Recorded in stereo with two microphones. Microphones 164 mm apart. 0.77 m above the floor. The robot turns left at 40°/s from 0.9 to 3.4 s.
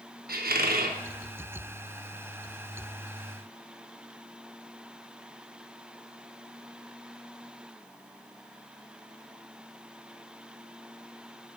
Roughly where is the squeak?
Right.